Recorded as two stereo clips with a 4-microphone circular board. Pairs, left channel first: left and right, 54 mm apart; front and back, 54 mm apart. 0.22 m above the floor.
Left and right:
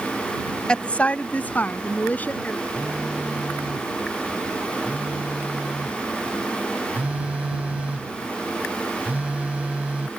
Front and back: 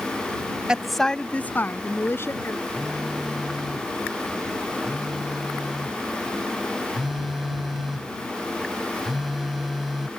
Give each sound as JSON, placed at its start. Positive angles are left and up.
{"t": 0.7, "sound": "a woman speaking", "azimuth_deg": 130}
{"t": 2.8, "sound": "a phone buzzing", "azimuth_deg": -100}